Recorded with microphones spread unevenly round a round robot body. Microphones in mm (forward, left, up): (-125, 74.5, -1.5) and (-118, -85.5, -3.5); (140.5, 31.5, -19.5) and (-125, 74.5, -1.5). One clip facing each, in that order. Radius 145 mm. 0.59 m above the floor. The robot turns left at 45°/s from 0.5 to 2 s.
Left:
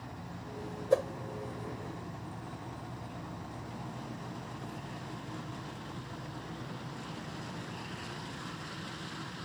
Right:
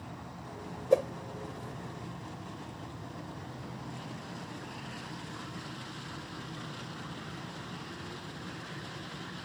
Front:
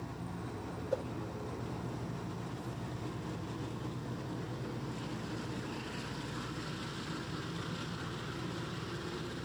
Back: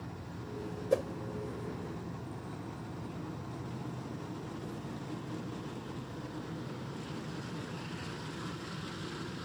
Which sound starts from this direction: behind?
A whoosh, at 0.9 s.